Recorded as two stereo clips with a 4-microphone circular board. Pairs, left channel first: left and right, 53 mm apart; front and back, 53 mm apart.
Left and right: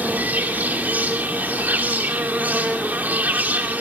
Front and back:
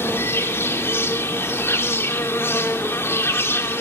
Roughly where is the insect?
Ahead right.